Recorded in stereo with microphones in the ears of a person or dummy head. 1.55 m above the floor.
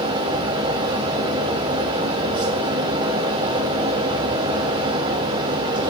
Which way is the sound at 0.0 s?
30° right (ahead or behind).